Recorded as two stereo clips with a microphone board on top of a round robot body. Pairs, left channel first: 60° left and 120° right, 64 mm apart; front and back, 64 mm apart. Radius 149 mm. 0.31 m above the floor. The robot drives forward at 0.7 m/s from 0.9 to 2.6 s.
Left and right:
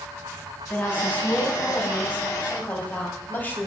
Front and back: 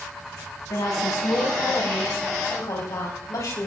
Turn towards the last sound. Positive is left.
turn(degrees=5)